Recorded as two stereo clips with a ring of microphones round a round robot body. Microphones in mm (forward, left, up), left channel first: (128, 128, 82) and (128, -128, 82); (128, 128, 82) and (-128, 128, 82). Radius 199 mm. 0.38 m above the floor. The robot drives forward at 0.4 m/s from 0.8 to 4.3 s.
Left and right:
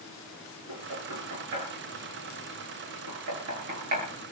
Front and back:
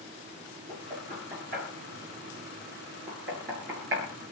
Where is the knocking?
110° right, 7 m; by 4.1 s 120° right, 8 m.